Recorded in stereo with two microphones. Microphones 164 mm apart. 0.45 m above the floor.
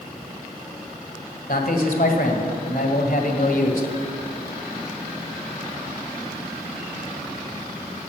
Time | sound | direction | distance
1.5 | a man speaking | 65° left (ahead or behind) | 1.7 m